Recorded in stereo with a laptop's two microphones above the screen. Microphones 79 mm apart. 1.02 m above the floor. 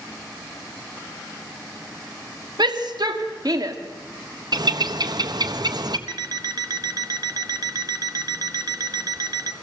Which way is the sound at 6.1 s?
55° right (ahead or behind).